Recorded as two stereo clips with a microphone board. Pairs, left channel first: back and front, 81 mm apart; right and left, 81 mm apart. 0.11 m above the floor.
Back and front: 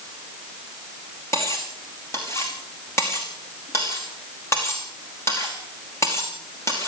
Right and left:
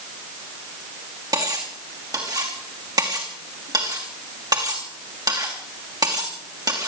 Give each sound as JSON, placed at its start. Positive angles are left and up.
{"t": 1.3, "sound": "cutlery clinking", "azimuth_deg": 125, "distance_m": 5.5}